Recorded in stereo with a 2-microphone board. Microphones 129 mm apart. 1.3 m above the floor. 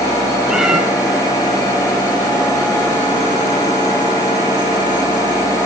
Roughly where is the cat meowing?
Centre.